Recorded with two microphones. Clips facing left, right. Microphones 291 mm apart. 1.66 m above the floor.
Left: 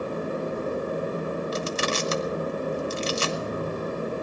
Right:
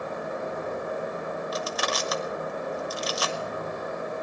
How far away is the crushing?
About 0.8 m.